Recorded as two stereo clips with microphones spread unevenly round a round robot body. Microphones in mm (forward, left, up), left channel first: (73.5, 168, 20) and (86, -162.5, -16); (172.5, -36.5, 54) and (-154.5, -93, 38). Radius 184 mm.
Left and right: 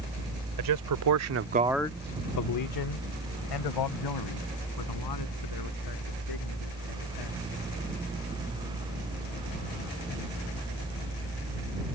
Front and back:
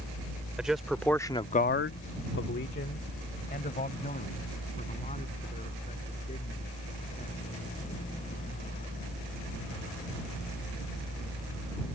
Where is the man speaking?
85° right; by 7.4 s 85° left.